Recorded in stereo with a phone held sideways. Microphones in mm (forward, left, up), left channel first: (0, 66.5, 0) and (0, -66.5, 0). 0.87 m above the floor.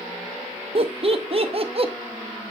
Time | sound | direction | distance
0.8 | laughter | 45° right (ahead or behind) | 0.8 m